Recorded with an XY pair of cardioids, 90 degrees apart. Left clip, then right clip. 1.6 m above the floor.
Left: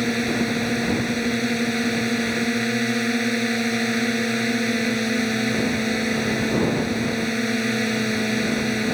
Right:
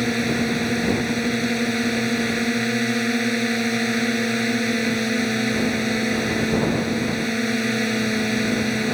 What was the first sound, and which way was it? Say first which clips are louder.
A drone: right 1 dB; straight ahead.